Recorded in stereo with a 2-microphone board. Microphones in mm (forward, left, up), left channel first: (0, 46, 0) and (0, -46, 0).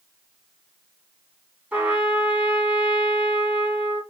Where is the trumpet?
15° right (ahead or behind), 1.1 m.